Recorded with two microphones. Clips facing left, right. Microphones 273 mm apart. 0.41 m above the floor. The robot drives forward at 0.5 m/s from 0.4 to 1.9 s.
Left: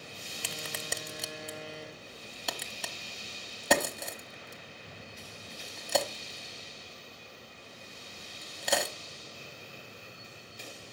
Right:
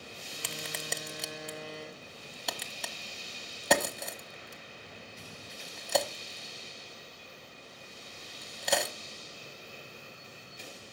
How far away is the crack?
About 0.6 m.